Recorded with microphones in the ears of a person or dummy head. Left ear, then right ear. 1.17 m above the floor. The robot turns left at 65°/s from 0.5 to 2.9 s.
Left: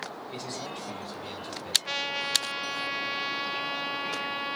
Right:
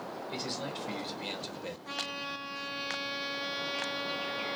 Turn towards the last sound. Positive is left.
turn(degrees=10)